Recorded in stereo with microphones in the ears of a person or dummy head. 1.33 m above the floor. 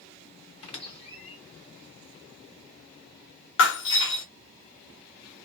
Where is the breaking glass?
70° left (ahead or behind), 1.2 m.